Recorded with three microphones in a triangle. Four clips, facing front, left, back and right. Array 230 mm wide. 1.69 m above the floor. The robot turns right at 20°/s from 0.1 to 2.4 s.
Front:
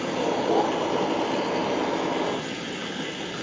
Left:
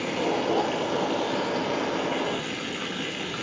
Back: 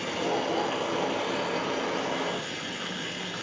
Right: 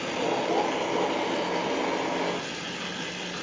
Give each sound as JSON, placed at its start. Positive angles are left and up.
{"t": 0.0, "sound": "running water", "azimuth_deg": 40, "distance_m": 0.8}